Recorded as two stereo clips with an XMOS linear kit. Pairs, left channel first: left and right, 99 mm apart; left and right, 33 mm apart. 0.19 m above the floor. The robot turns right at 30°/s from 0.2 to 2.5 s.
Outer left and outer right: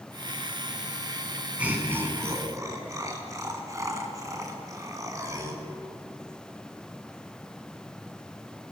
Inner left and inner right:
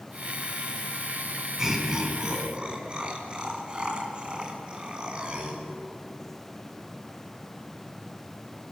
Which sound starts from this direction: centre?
Laughter, at 1.6 s.